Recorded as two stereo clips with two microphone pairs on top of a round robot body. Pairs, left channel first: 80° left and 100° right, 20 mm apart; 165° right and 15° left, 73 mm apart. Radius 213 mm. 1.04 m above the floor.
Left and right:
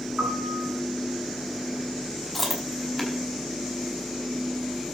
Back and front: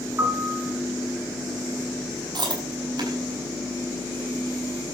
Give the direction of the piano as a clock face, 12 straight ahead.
1 o'clock.